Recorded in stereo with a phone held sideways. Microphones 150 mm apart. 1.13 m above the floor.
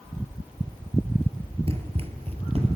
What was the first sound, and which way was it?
Running footsteps, 40° right (ahead or behind).